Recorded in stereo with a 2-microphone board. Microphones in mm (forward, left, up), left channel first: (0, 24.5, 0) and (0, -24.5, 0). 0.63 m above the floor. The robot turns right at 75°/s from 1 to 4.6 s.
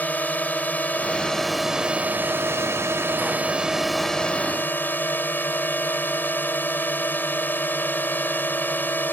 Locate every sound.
0.0 s a drone: 140° left; by 9.1 s 50° left